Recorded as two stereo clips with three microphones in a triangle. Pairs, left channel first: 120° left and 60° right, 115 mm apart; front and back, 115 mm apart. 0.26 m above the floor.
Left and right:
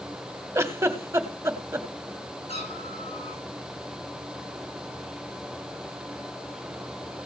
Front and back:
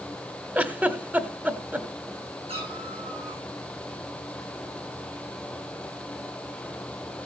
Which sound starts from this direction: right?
A giggle, at 0.6 s.